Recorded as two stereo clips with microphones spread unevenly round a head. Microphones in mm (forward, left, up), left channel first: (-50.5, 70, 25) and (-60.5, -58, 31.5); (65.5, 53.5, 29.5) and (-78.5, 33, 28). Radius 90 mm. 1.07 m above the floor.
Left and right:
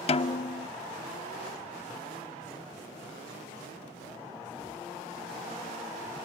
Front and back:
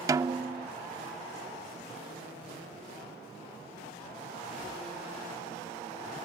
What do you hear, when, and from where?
0.1 s a snare drum: 125° left